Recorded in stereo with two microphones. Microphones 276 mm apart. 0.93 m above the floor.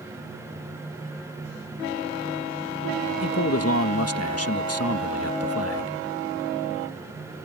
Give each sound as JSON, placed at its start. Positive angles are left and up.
{"t": 3.2, "sound": "a man speaking", "side_deg": 55}